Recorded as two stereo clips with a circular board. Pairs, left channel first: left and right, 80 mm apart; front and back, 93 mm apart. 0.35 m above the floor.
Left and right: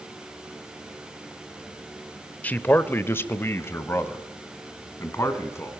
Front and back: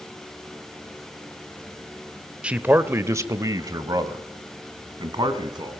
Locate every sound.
2.4 s a man speaking: 120° left, 0.8 m; by 5.7 s 145° left, 2.5 m